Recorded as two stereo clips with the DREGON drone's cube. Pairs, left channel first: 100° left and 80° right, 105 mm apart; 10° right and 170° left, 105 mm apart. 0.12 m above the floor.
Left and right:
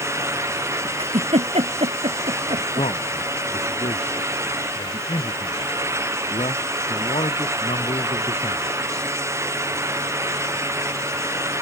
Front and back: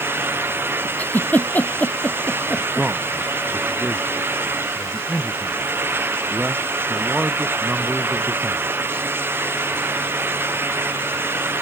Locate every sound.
1.0 s a giggle: 85° right
2.6 s a man speaking: 90° left